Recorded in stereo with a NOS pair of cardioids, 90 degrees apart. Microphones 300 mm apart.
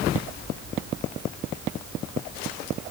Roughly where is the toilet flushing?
No toilet flushing in this recording.